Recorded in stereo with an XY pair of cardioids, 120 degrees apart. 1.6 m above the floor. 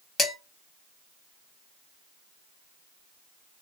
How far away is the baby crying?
No baby crying in this recording.